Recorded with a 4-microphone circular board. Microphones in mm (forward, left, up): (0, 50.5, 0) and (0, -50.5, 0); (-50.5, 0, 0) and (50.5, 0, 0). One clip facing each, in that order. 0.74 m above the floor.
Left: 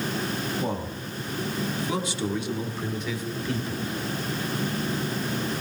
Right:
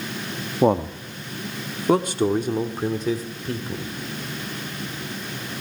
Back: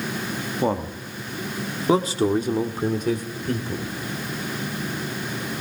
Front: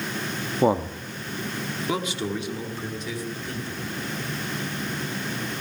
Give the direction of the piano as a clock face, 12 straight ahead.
I don't hear a piano.